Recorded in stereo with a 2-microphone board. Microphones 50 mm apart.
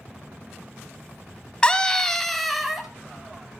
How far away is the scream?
About 1.1 m.